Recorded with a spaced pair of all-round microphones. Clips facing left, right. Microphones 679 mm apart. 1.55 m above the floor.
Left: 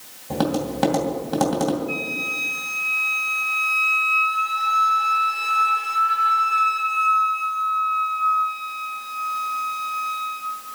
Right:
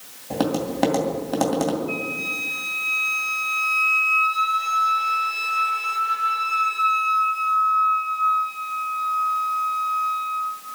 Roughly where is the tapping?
Left.